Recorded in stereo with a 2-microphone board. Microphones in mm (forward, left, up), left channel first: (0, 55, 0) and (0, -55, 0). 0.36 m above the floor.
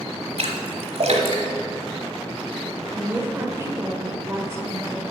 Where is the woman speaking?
25° right (ahead or behind), 0.9 m.